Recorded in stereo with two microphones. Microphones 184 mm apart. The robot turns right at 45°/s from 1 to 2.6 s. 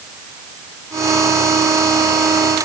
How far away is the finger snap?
I don't hear a finger snap.